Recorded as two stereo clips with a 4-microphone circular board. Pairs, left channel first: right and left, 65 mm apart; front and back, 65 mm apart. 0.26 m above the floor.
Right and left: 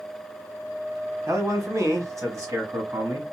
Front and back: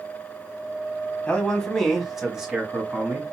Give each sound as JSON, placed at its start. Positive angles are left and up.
{"t": 1.3, "sound": "a man speaking", "azimuth_deg": 70, "distance_m": 1.4}